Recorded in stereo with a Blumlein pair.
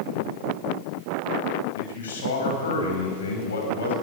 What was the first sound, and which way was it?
A man speaking, 65° left.